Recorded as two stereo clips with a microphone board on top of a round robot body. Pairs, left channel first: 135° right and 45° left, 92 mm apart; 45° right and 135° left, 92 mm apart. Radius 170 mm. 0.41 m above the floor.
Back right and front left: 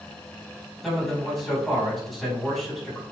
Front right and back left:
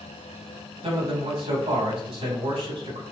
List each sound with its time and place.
0.8 s a man speaking: 140° left, 4 m